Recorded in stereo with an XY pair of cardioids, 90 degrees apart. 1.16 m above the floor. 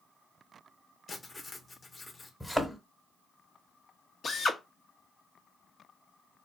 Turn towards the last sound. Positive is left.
turn(degrees=55)